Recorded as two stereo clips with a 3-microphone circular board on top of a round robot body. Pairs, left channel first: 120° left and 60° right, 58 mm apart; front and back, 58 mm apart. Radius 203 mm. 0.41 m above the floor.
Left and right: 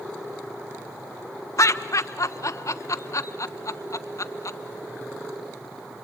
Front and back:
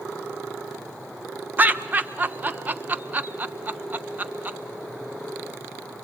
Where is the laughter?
125° left, 1.4 m.